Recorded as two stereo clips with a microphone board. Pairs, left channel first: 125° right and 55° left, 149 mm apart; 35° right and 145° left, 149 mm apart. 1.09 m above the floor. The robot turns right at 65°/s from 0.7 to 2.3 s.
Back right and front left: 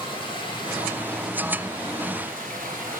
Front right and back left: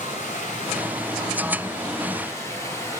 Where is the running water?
70° right, 8 m; by 3.0 s 35° left, 8 m.